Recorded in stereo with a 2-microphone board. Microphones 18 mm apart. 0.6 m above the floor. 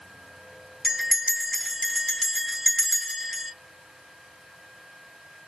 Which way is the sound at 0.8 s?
10° left (ahead or behind).